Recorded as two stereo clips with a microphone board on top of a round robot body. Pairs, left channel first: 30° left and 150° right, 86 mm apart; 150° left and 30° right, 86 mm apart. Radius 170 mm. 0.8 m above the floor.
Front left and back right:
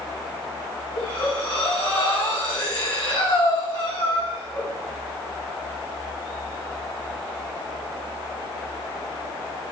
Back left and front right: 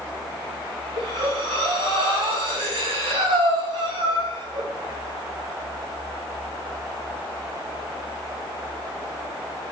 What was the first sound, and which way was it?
Breathing, 20° right.